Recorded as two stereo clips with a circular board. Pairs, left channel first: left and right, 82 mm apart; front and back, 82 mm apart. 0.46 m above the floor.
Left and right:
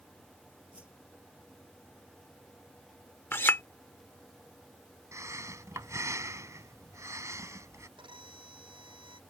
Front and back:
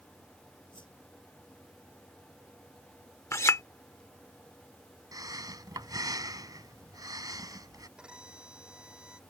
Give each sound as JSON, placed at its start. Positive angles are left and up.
{"t": 0.7, "sound": "a whoosh", "azimuth_deg": -15}
{"t": 3.3, "sound": "a clink", "azimuth_deg": 40}
{"t": 5.1, "sound": "breathing", "azimuth_deg": -140}
{"t": 8.0, "sound": "a violin", "azimuth_deg": -100}